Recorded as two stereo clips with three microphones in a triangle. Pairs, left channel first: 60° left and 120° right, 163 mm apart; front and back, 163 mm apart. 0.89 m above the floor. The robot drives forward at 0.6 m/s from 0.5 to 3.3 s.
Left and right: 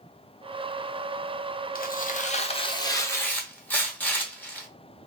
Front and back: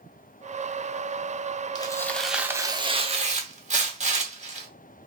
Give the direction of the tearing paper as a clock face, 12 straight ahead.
10 o'clock.